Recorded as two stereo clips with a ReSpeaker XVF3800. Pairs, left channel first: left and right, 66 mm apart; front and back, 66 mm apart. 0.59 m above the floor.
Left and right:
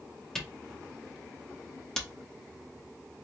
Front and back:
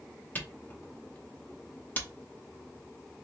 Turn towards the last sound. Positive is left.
turn(degrees=15)